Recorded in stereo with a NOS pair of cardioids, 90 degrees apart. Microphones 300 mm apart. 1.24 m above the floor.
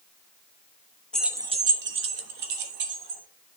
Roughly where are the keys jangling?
Ahead.